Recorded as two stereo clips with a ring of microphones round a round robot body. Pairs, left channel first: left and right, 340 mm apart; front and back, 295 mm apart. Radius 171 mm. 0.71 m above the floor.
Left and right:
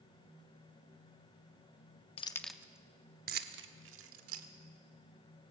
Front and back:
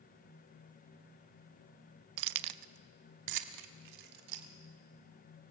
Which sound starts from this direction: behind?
Keys jangling, at 2.2 s.